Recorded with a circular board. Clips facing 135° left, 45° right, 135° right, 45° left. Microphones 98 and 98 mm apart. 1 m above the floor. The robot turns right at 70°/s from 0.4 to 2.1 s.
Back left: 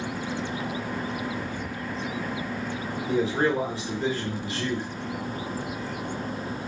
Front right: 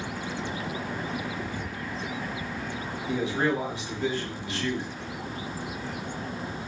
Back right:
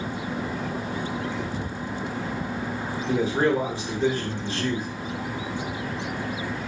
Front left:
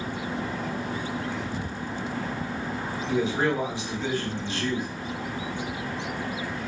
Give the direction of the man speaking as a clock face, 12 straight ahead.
6 o'clock.